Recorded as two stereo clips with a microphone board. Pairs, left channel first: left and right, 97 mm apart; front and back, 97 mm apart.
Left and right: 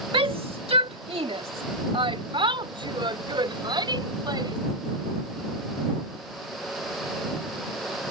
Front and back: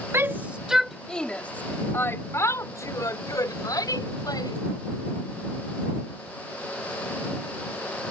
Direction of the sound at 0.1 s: 115° right.